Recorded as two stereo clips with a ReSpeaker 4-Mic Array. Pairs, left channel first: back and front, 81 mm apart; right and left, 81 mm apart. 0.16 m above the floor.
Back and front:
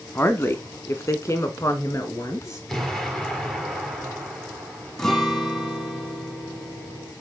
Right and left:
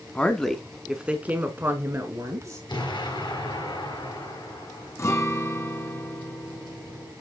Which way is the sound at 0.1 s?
145° right.